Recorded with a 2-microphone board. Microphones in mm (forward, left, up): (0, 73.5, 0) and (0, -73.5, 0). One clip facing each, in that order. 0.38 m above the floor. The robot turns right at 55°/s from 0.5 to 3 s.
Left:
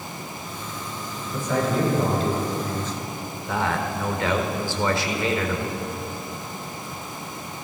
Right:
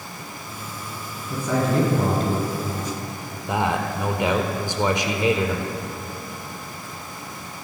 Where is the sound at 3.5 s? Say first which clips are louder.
Right 2 dB; 20° right (ahead or behind), 1.1 m.